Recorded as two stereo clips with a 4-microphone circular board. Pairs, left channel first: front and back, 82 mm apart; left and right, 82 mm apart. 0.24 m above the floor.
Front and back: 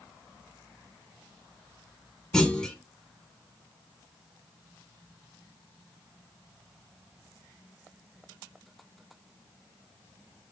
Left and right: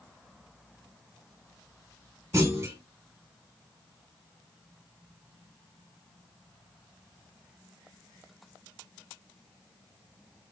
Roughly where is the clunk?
Right.